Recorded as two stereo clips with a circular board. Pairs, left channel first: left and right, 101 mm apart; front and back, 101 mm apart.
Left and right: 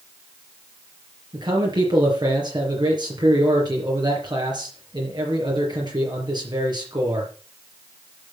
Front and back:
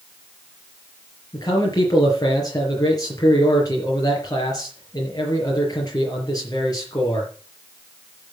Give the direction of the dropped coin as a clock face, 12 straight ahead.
No dropped coin in this recording.